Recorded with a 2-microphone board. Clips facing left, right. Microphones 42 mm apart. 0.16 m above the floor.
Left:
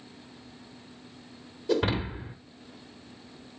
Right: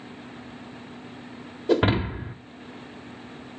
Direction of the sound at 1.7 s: 35° right (ahead or behind).